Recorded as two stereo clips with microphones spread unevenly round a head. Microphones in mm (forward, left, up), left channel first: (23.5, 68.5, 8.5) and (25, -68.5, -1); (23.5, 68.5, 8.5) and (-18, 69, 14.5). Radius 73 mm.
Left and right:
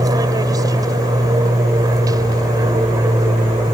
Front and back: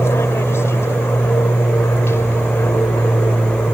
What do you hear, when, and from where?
0.0 s an aircraft: 25° right